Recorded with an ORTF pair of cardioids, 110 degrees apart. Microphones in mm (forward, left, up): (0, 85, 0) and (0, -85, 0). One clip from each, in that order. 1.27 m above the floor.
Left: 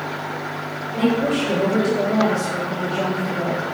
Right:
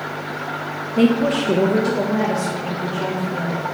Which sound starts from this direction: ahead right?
A woman speaking, at 1.0 s.